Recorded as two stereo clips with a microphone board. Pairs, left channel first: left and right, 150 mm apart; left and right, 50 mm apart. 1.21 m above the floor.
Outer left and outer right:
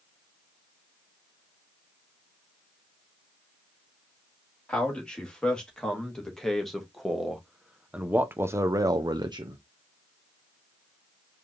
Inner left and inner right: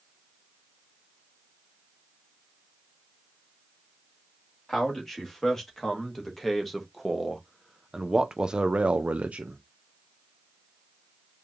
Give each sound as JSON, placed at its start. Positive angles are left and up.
{"t": 4.7, "sound": "a man speaking", "side_deg": 5, "distance_m": 2.5}